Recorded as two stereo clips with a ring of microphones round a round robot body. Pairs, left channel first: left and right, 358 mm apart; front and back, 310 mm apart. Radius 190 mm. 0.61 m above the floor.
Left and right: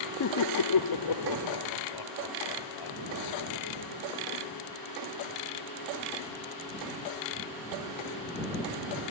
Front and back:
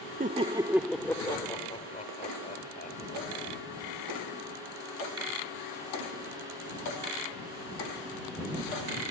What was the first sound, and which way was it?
Laughter, 125° left.